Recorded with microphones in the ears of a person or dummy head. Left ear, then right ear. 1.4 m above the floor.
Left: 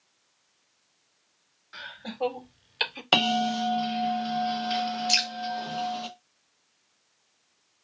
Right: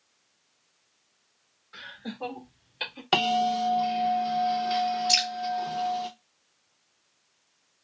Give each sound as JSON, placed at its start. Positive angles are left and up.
{"t": 1.7, "sound": "laughter", "side_deg": 30, "distance_m": 2.5}
{"t": 3.1, "sound": "a bell", "side_deg": 15, "distance_m": 0.9}
{"t": 5.1, "sound": "dripping", "side_deg": 20, "distance_m": 1.3}